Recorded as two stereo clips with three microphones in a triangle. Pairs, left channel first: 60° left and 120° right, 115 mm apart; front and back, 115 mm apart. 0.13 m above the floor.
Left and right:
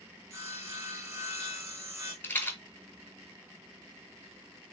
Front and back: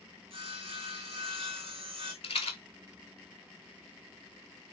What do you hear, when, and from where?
0.3 s sawing: straight behind, 0.9 m
2.2 s a rattle: 10° right, 0.6 m